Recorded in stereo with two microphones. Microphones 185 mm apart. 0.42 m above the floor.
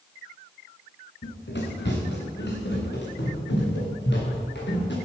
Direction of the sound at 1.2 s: 70° left (ahead or behind).